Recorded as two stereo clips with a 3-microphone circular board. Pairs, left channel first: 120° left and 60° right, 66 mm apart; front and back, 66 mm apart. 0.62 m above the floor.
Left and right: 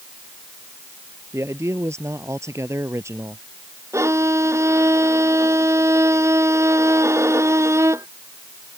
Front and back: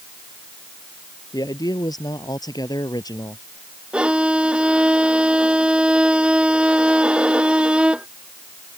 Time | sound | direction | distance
1.3 | a man speaking | 15° right | ?
3.9 | a violin | 105° right | ?